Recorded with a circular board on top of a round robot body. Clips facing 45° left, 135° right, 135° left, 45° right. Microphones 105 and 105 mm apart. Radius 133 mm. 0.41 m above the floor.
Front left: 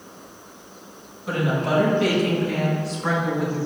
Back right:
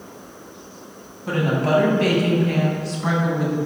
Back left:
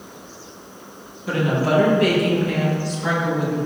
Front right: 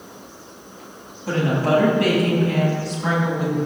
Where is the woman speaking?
95° right, 4 m; by 3.6 s 115° right, 4 m.